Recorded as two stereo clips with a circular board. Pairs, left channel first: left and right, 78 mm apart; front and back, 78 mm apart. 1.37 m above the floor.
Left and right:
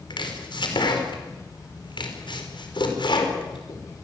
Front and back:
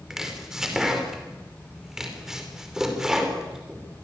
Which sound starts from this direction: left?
Chopping, at 0.1 s.